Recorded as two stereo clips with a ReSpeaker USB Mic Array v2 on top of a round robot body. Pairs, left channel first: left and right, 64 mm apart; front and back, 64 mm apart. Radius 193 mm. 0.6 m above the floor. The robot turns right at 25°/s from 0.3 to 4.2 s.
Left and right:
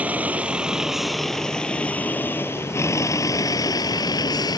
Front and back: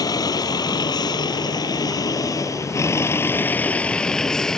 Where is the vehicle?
20° right; by 4.6 s 80° left.